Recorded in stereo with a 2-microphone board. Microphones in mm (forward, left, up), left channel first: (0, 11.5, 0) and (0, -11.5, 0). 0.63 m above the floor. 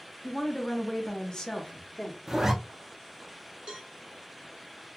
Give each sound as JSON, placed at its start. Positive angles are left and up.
{"t": 0.2, "sound": "a woman speaking", "side_deg": 10, "distance_m": 0.7}
{"t": 2.3, "sound": "a zipper", "side_deg": -25, "distance_m": 0.6}
{"t": 3.7, "sound": "a cowbell", "side_deg": -45, "distance_m": 0.8}